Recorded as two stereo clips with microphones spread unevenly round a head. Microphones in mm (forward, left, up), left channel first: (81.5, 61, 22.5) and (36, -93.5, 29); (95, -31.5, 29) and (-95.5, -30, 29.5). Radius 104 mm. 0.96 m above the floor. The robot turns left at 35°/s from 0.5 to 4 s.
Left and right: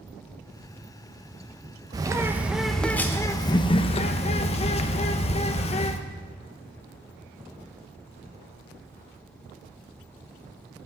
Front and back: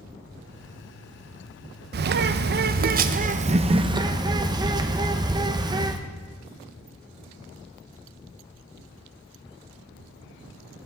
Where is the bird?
170° right, 0.5 m; by 6.0 s 115° left, 0.5 m.